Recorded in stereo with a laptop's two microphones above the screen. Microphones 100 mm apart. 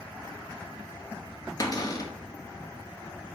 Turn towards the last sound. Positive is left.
turn(degrees=40)  # may be behind; listen again after turning